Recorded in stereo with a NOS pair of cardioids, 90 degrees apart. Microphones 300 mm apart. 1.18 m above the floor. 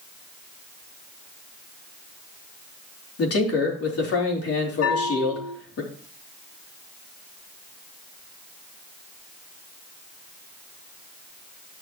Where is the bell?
60° left, 5 m.